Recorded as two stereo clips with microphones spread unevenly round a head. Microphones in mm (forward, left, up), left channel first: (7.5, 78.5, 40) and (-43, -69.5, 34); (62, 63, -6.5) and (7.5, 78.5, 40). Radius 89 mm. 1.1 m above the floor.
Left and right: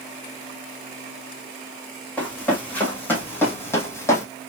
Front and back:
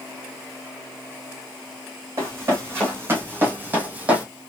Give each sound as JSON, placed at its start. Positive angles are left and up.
{"t": 2.2, "sound": "running footsteps", "azimuth_deg": 150, "distance_m": 3.5}